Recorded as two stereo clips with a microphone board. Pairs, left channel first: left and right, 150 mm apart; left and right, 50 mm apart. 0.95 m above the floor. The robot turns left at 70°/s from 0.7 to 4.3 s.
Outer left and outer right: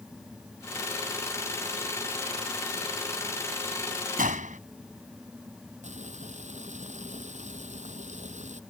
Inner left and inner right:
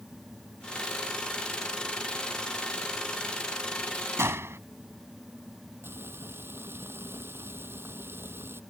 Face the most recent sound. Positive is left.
turn(degrees=-55)  # may be behind; listen again after turning